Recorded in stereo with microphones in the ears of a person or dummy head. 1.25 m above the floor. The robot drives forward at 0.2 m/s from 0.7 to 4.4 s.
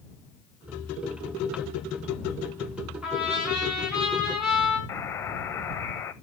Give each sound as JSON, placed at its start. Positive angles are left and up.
{"t": 3.0, "sound": "a trumpet", "side_deg": -5, "distance_m": 3.5}
{"t": 4.9, "sound": "a buzzer", "side_deg": 15, "distance_m": 0.7}